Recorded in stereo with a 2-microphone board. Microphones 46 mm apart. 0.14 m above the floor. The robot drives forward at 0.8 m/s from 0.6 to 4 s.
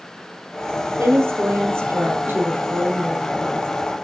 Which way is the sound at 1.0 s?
60° right (ahead or behind).